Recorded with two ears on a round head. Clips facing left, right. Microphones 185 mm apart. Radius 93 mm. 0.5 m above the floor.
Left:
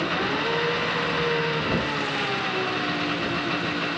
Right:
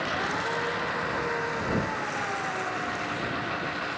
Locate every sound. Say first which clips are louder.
0.0 s an engine running: left 5 dB; 45° left (ahead or behind)